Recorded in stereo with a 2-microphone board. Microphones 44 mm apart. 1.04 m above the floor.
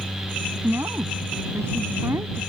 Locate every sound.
0.6 s a woman speaking: 85° right